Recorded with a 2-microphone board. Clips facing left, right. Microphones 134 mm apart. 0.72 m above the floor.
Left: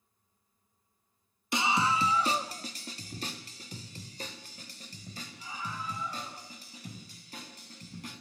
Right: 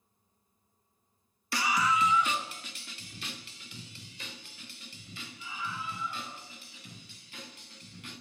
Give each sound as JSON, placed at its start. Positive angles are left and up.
{"t": 1.5, "sound": "a scream", "side_deg": 20, "distance_m": 1.1}